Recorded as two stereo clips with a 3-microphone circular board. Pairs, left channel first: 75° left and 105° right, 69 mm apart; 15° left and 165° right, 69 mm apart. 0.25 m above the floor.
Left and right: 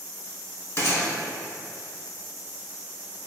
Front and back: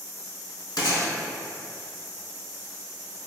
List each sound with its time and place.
0.8 s a gunshot: 30° left, 0.8 m